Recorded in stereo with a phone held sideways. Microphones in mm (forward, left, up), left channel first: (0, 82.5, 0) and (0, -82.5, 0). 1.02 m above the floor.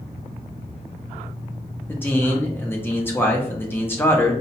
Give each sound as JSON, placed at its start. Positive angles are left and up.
{"t": 1.9, "sound": "a man speaking", "side_deg": 15, "distance_m": 0.7}